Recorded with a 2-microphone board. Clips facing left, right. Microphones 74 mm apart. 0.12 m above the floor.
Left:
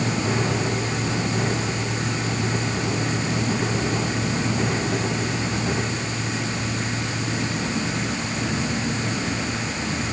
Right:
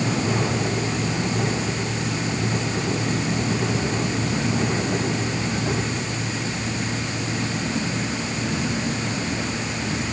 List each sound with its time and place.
Only background noise.